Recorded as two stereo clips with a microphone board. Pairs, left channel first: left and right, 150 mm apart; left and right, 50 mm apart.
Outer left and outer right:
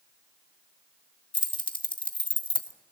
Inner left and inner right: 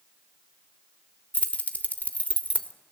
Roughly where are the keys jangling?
Left.